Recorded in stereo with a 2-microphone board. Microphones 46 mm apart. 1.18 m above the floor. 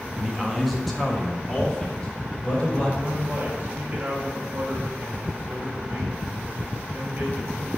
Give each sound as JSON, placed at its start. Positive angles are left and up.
{"t": 0.2, "sound": "a man speaking", "side_deg": -10, "distance_m": 1.1}
{"t": 3.0, "sound": "a man speaking", "side_deg": -35, "distance_m": 3.0}